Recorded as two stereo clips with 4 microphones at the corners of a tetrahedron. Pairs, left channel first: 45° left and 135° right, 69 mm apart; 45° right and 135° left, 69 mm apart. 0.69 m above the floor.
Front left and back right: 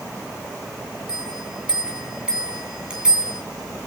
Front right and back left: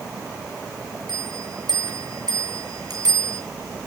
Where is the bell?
150° left, 6.5 m.